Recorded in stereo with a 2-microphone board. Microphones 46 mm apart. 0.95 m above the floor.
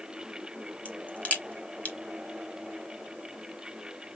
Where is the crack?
30° left (ahead or behind), 1.3 m.